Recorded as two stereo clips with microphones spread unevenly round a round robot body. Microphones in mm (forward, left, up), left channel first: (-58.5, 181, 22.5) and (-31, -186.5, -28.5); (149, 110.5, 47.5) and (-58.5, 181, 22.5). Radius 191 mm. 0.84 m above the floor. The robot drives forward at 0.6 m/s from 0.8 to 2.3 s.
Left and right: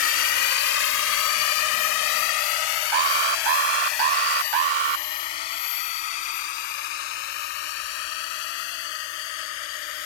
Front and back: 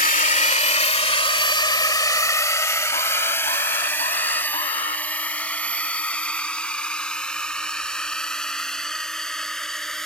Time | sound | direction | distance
0.0 | a drone | 35° left | ?
2.9 | an alarm | 95° right | ?